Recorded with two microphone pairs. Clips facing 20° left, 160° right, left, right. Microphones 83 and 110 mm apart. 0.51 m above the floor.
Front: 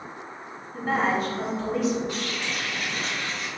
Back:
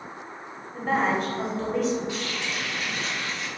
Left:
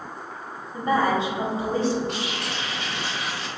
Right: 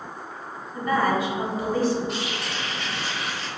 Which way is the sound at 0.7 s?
105° left.